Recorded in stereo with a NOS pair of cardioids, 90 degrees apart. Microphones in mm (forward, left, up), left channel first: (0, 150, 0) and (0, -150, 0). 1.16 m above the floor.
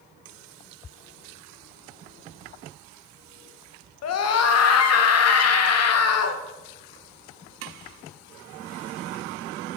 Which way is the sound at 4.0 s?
55° left.